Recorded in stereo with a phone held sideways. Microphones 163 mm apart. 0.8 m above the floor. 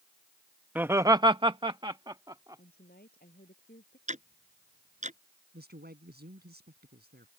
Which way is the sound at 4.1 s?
50° right (ahead or behind).